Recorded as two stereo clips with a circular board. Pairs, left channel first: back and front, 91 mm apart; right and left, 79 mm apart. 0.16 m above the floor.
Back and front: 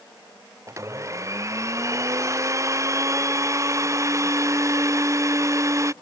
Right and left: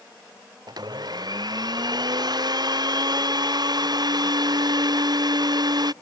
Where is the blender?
55° left.